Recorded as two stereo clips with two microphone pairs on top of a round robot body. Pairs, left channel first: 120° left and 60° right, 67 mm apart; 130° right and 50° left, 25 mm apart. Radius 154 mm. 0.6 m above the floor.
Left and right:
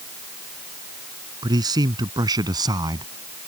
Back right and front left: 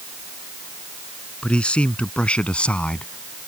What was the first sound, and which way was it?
A man speaking, 85° right.